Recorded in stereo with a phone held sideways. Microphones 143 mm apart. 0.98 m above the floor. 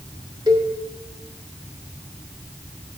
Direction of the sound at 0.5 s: 30° right (ahead or behind).